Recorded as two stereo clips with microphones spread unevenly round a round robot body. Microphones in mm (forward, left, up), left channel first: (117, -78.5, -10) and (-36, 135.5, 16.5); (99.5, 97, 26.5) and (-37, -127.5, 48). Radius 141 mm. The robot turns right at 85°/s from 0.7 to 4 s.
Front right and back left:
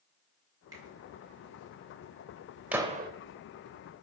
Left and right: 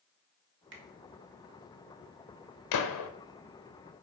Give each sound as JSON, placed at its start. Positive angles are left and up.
{"t": 0.7, "sound": "a finger snap", "azimuth_deg": -155, "distance_m": 1.7}
{"t": 2.7, "sound": "a gunshot", "azimuth_deg": 40, "distance_m": 0.9}